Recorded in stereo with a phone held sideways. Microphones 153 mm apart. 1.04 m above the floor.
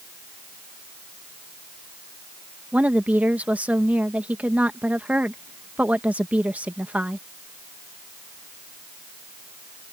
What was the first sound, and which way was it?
A woman speaking, 10° right (ahead or behind).